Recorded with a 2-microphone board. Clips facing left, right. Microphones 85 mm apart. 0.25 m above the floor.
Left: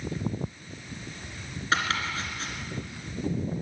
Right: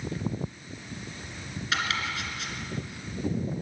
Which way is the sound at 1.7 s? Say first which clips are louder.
Left 3 dB; 35° left (ahead or behind).